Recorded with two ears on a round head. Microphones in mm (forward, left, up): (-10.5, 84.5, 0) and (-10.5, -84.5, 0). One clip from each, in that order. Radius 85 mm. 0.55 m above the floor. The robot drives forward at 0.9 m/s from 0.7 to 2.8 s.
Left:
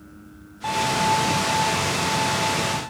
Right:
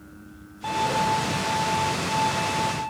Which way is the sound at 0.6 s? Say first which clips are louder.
Left 2 dB; 5° left (ahead or behind).